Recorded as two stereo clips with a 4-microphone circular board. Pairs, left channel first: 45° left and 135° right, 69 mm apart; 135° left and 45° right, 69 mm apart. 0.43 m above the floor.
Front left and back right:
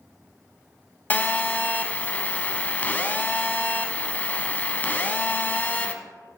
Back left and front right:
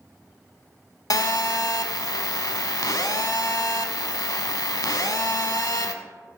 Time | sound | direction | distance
1.1 | a phone buzzing | 110° left | 0.7 m